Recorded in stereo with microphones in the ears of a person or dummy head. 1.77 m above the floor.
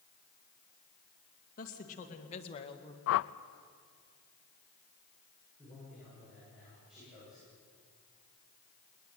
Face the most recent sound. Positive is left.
turn(degrees=-5)  # may be behind; listen again after turning